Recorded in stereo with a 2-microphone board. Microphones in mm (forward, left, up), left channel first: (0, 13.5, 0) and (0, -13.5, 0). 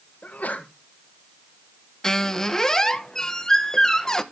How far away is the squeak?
About 1.0 m.